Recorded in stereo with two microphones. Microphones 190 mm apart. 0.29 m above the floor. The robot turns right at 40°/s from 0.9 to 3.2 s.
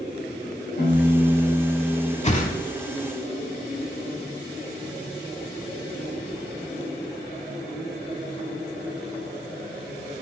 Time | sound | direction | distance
0.8 | a piano | 120° left | 3 m
2.2 | a whoosh | 35° left (ahead or behind) | 0.8 m